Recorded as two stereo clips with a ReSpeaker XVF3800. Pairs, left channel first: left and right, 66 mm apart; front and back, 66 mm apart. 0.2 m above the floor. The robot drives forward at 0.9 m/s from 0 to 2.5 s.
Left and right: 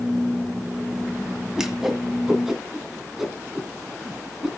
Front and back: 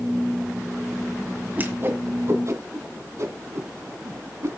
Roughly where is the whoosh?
Behind.